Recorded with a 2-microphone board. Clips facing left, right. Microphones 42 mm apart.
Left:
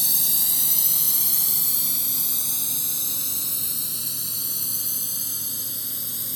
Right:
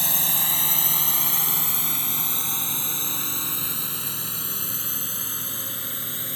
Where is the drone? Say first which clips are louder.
Right 4 dB; 45° right (ahead or behind); by 6.4 s 40° right (ahead or behind).